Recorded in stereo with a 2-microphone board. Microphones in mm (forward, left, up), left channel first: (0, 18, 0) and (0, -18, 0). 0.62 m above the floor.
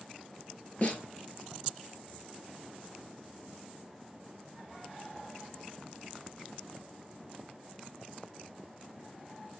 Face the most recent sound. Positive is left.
turn(degrees=40)  # may be behind; listen again after turning